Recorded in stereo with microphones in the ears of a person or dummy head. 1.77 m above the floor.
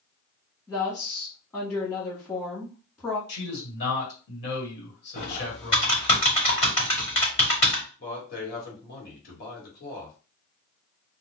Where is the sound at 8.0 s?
60° left (ahead or behind), 1.8 m.